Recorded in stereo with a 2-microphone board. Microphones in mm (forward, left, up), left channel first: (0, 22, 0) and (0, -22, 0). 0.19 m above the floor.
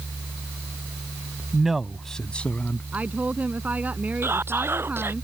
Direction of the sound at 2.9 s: 35° right (ahead or behind).